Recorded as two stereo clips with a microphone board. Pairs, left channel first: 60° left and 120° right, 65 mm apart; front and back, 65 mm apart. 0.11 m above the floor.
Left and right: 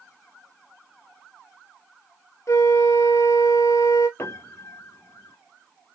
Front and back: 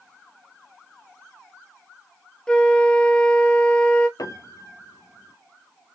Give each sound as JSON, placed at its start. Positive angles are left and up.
{"t": 2.5, "sound": "a flute", "azimuth_deg": 75, "distance_m": 1.0}
{"t": 4.2, "sound": "a piano", "azimuth_deg": 15, "distance_m": 0.8}